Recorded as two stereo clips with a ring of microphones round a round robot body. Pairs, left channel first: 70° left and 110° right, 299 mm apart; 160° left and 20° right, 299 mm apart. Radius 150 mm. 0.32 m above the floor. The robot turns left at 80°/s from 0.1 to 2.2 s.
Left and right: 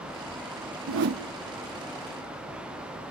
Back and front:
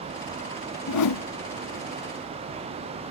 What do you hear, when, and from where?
0.9 s a whoosh: 155° right, 0.6 m; by 1.2 s 175° left, 0.6 m